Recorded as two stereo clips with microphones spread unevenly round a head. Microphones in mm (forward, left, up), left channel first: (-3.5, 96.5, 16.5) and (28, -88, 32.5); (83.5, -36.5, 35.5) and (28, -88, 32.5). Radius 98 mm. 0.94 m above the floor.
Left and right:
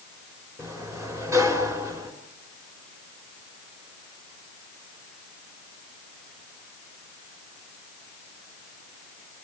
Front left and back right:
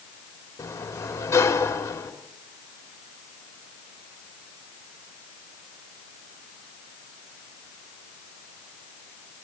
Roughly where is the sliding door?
Ahead.